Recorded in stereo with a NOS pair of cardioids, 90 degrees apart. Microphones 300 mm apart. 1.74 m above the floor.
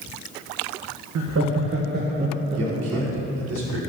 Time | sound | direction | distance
1.1 | laughter | 65° right | 1.5 m
2.5 | a man speaking | 60° right | 4.5 m